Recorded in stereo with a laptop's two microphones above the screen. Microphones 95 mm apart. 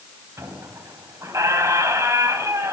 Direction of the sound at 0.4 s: 30° right (ahead or behind).